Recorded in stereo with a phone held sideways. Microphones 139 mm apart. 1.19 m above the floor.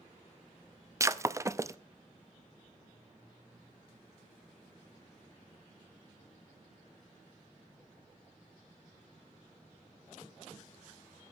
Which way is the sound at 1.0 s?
20° right (ahead or behind).